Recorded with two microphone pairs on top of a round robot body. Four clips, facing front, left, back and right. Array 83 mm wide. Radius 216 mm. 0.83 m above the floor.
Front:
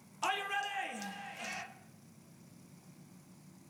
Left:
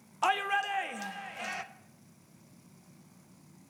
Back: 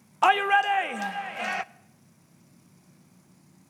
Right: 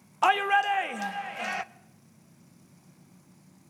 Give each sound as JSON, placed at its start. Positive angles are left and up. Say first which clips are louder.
{"t": 0.2, "sound": "a shout", "louder": "right 6 dB, back 15 dB", "azimuth_deg": -160, "distance_m": 0.8}